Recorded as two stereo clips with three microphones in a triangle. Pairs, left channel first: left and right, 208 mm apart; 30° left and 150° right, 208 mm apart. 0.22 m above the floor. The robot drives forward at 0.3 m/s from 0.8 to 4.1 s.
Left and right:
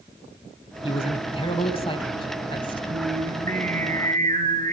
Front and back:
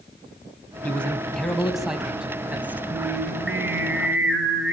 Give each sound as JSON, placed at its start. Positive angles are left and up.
{"t": 0.8, "sound": "a man speaking", "azimuth_deg": 105, "distance_m": 1.7}
{"t": 2.9, "sound": "singing", "azimuth_deg": -135, "distance_m": 2.0}